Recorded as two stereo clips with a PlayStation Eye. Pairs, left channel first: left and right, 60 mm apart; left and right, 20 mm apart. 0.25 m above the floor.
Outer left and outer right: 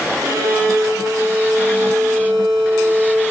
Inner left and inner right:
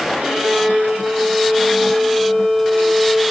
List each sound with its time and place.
0.2 s a violin: 75° right (ahead or behind), 9.5 m